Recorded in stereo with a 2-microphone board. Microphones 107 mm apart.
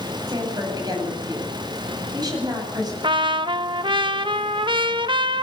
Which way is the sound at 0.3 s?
40° right (ahead or behind).